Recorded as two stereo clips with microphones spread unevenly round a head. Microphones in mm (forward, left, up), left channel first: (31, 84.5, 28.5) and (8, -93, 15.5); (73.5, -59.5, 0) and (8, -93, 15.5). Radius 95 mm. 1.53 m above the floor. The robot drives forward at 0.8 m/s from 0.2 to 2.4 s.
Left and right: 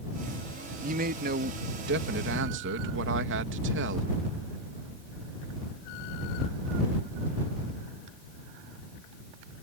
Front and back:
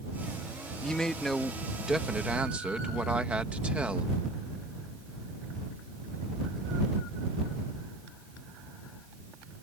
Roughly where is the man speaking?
Ahead right.